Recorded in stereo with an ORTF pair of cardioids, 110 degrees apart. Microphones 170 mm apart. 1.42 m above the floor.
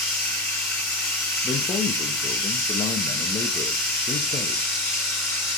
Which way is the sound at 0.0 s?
20° left.